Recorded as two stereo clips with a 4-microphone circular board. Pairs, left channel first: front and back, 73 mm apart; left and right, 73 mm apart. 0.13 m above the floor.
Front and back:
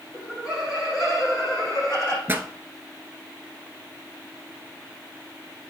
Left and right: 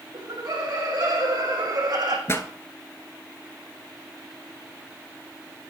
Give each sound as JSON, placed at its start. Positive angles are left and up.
{"t": 0.1, "sound": "laughter", "azimuth_deg": -100, "distance_m": 5.5}
{"t": 2.3, "sound": "a pop", "azimuth_deg": 130, "distance_m": 1.0}